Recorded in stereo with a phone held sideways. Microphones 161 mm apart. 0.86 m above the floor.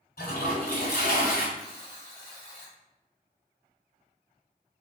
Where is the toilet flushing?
70° left (ahead or behind), 1.4 m.